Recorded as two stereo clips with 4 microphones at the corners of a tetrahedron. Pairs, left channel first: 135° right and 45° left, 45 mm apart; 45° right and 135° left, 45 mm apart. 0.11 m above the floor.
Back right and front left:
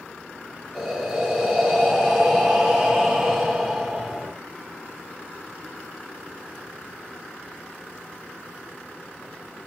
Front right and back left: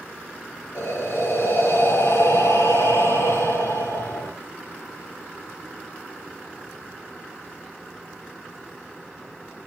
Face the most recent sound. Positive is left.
turn(degrees=-40)